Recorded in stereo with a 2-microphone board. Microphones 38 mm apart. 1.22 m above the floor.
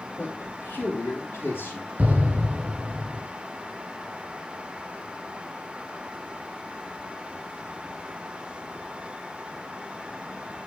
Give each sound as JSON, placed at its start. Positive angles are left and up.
{"t": 0.2, "sound": "a man speaking", "side_deg": 70, "distance_m": 3.0}
{"t": 2.0, "sound": "an explosion", "side_deg": -40, "distance_m": 3.0}